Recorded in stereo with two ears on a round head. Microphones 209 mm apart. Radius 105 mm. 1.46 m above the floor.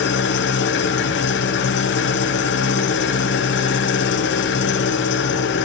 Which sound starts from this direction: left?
An engine running, at 0.0 s.